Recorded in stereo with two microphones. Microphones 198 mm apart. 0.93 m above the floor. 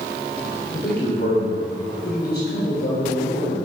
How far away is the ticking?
I don't hear ticking.